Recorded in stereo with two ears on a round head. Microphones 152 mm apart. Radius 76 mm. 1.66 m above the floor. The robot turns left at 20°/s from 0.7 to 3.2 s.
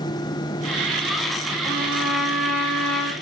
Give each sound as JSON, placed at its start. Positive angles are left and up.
{"t": 1.6, "sound": "a trumpet", "side_deg": -20, "distance_m": 6.5}